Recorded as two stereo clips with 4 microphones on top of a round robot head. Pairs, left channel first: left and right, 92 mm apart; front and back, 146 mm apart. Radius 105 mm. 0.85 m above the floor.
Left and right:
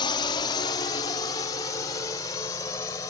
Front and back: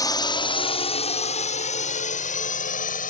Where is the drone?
60° left; by 3.1 s 25° left.